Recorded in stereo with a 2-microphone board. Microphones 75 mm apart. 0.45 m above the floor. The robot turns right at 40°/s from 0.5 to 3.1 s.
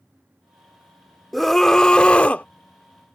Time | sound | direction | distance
1.3 | a scream | centre (ahead or behind) | ?